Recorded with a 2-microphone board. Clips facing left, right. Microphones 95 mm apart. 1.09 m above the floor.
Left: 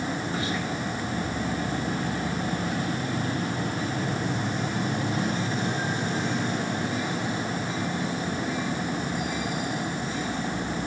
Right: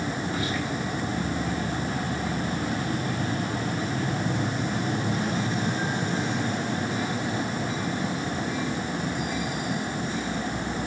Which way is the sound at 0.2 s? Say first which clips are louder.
Right 1 dB; 30° left (ahead or behind).